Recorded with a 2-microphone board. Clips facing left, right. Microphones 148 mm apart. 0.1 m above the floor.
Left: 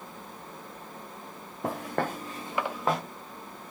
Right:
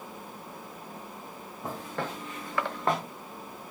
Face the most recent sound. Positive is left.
turn(degrees=-5)  # may be behind; listen again after turning